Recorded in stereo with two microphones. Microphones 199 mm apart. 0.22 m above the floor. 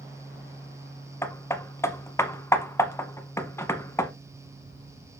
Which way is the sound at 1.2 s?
15° left (ahead or behind).